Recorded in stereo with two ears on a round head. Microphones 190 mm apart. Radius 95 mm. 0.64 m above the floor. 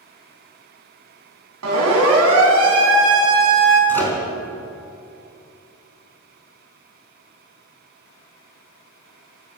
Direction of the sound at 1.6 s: 80° right.